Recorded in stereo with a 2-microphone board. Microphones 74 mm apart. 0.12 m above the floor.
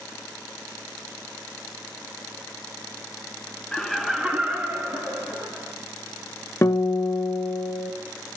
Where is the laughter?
10° left (ahead or behind), 1.1 m; by 5.7 s 30° right (ahead or behind), 2.5 m.